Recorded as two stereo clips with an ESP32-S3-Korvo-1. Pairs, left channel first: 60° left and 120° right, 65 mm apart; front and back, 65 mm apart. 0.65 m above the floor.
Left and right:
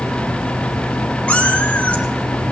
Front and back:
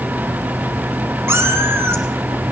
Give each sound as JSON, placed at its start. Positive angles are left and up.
{"t": 1.3, "sound": "a cat meowing", "azimuth_deg": 130, "distance_m": 1.6}